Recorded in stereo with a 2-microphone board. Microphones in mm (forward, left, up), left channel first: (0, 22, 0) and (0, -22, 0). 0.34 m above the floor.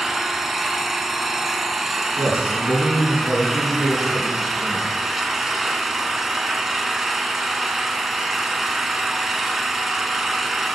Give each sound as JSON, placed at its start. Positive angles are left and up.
{"t": 0.0, "sound": "an engine running", "side_deg": -5, "distance_m": 1.0}
{"t": 2.2, "sound": "a man speaking", "side_deg": 55, "distance_m": 4.5}